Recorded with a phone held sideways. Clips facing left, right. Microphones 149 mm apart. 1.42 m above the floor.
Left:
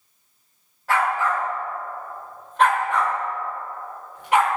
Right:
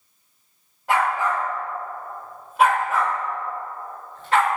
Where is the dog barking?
20° right (ahead or behind), 2 m; by 4.5 s 20° left (ahead or behind), 1.1 m.